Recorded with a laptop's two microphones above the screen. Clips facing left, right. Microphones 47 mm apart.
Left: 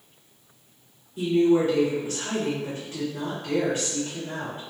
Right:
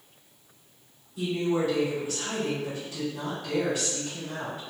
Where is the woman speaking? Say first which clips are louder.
Left 7 dB; 45° left (ahead or behind), 2.0 m.